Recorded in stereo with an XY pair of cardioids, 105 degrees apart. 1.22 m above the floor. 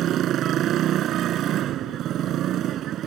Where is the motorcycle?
70° right.